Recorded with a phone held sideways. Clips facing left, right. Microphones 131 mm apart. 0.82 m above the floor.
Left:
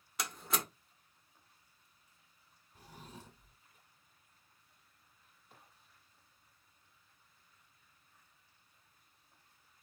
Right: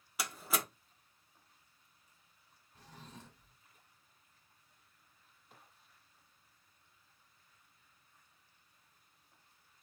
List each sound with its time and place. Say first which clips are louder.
0.2 s a door slam: right 1 dB; 5° right (ahead or behind), 1.5 m
2.8 s a drawer: left 1 dB; 10° left (ahead or behind), 1.3 m